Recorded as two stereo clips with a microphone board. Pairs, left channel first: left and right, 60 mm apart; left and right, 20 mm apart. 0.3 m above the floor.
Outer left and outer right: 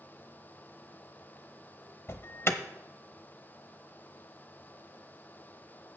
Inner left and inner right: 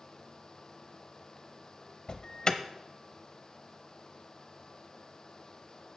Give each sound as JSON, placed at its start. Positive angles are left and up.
{"t": 2.1, "sound": "an alarm", "side_deg": 45, "distance_m": 0.7}